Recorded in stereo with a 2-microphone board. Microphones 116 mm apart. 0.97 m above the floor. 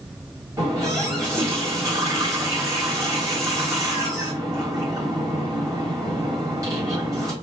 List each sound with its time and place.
0.6 s a running tap: 30° right (ahead or behind), 1.5 m